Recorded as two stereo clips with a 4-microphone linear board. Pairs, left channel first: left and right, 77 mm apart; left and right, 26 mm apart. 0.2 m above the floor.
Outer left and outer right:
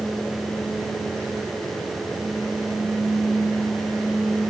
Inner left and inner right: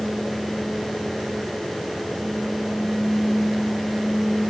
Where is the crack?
No crack in this recording.